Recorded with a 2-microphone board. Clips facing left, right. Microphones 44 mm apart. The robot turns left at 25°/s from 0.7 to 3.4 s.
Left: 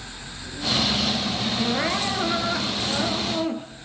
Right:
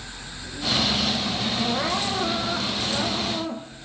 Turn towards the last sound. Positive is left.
turn(degrees=60)